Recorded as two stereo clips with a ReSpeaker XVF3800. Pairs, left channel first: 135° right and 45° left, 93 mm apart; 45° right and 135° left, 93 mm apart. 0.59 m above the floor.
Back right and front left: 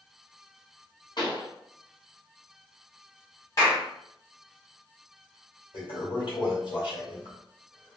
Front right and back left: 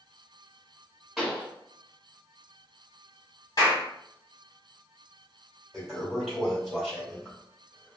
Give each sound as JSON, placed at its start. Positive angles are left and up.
{"t": 1.2, "sound": "a pop", "azimuth_deg": -135, "distance_m": 1.7}
{"t": 3.6, "sound": "a clap", "azimuth_deg": -85, "distance_m": 1.8}
{"t": 5.7, "sound": "a toilet flushing", "azimuth_deg": -135, "distance_m": 1.8}